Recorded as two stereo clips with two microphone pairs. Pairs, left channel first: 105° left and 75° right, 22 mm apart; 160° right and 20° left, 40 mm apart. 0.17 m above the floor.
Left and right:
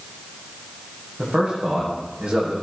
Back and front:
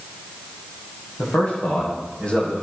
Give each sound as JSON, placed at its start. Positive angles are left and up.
{"t": 1.2, "sound": "a man speaking", "azimuth_deg": -100, "distance_m": 9.5}